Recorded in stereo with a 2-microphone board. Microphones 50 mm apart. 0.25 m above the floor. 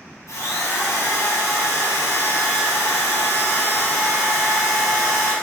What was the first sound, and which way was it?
A drill, 70° left (ahead or behind).